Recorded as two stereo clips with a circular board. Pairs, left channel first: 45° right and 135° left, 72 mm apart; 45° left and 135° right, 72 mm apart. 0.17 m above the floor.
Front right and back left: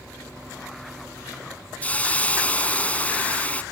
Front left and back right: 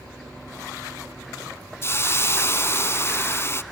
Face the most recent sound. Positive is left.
turn(degrees=15)